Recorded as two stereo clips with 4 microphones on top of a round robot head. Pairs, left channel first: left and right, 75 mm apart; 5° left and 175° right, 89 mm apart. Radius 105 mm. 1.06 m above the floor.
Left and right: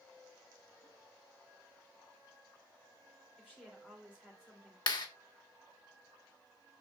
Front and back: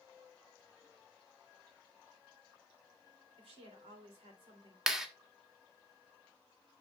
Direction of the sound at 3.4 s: 175° right.